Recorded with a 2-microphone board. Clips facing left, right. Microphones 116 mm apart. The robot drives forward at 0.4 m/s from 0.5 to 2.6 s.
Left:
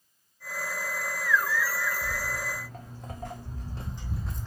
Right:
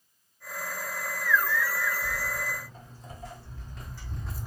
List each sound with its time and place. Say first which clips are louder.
2.0 s footsteps: even; 85° left, 1.4 m; by 4.5 s 10° right (ahead or behind), 0.6 m